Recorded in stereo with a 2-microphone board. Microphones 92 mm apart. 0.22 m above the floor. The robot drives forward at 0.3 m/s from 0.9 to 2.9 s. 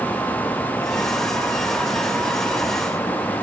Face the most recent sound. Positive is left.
No sound to turn to.